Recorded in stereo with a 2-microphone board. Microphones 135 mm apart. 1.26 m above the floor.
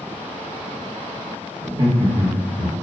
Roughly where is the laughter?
Right.